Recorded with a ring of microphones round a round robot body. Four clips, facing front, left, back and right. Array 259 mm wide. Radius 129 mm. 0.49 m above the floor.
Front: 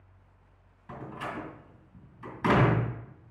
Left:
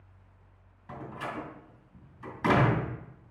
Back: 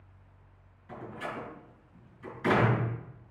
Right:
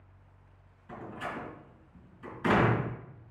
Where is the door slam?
45° left, 3 m.